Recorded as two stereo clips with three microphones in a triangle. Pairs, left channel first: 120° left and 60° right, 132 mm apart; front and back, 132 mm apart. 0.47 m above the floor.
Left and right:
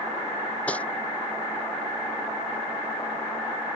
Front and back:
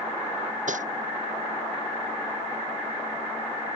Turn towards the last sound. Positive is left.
turn(degrees=-160)